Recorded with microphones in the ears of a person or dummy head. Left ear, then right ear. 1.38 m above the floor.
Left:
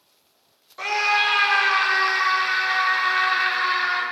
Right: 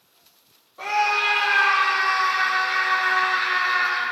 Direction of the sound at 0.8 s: 60° left (ahead or behind).